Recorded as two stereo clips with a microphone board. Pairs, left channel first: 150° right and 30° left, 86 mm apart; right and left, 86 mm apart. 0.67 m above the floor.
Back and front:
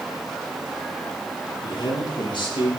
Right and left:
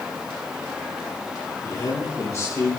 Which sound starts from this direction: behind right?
A man speaking, at 1.6 s.